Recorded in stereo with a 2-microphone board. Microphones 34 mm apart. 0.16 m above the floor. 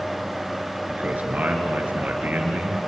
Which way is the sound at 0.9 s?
55° right (ahead or behind).